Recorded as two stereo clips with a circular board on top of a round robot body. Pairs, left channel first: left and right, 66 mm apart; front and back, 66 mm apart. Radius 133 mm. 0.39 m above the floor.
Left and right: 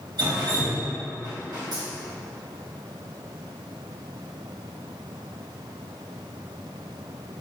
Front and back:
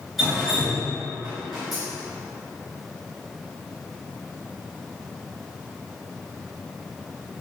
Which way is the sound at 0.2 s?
90° right.